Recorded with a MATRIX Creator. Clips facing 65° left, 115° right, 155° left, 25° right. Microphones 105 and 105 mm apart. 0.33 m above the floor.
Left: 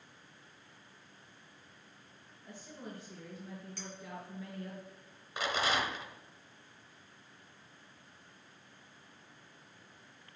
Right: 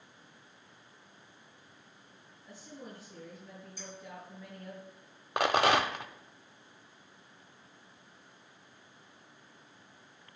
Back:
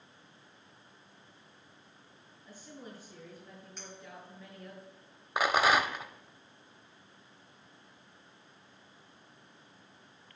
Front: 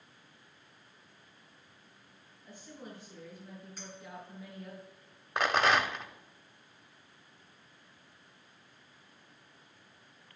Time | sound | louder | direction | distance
2.4 | a woman speaking | even, even | 45° left | 5.5 m
3.8 | a clink | left 1 dB, front 1 dB | 60° left | 2.5 m
5.4 | a rattle | right 7 dB, back 1 dB | 120° right | 0.5 m